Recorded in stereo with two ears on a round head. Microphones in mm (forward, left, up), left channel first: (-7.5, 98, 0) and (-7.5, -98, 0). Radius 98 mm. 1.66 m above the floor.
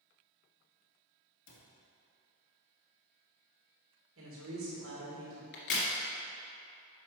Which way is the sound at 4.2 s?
60° right (ahead or behind).